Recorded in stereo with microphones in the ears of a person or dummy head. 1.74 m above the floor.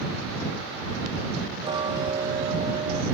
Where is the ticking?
25° right (ahead or behind).